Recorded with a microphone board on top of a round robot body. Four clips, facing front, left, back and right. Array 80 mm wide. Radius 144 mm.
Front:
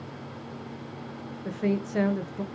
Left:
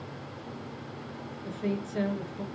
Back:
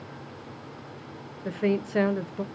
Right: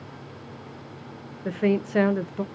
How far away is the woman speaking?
About 0.8 m.